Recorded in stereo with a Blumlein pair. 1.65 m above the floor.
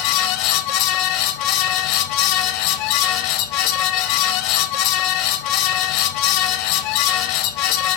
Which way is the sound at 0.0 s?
40° left.